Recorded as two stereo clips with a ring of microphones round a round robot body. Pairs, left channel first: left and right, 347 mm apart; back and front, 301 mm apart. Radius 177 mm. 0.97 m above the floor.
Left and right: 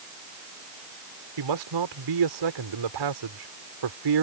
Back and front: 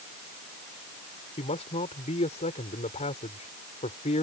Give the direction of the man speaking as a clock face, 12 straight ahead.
4 o'clock.